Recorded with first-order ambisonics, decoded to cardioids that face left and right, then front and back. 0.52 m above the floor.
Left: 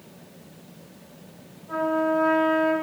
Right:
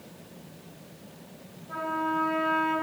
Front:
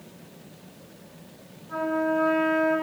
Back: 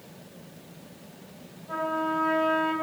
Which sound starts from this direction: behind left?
A trumpet, at 1.7 s.